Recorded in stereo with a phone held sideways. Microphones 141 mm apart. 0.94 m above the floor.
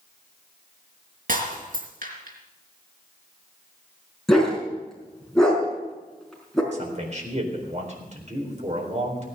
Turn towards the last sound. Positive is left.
turn(degrees=-55)  # may be behind; listen again after turning